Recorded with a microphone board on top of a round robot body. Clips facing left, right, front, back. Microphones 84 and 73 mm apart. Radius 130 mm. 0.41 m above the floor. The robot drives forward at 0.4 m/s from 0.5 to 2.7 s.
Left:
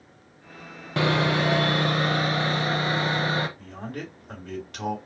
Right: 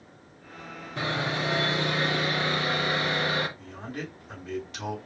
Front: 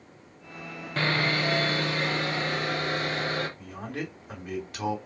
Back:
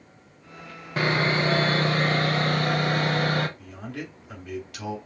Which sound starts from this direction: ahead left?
A man speaking, at 3.6 s.